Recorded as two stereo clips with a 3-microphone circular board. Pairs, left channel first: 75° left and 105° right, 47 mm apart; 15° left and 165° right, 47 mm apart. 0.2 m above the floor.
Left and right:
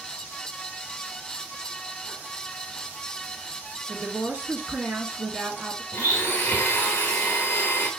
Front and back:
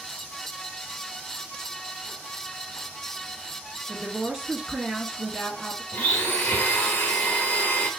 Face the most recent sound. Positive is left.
turn(degrees=45)